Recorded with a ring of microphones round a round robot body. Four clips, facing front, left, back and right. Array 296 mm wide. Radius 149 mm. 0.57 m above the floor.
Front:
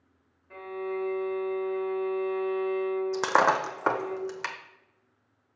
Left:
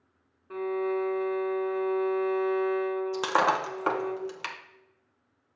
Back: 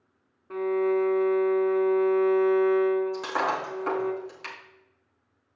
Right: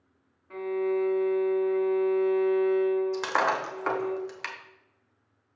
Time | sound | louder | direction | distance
0.5 | a violin | right 1 dB, back 10 dB | 155° left | 1.3 m
3.1 | breaking glass | left 1 dB, front 4 dB | 20° left | 1.1 m